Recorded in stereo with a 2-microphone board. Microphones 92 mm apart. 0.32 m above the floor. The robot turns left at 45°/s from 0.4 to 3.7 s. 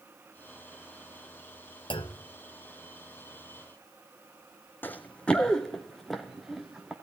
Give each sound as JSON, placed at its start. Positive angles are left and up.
{"t": 1.9, "sound": "a clunk", "side_deg": 60, "distance_m": 0.8}
{"t": 4.8, "sound": "running footsteps", "side_deg": 20, "distance_m": 1.2}